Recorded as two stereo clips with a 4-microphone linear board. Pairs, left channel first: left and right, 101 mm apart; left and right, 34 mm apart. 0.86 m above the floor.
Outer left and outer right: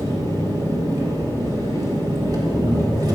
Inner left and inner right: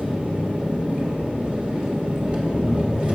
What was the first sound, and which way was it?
An engine running, 40° right (ahead or behind).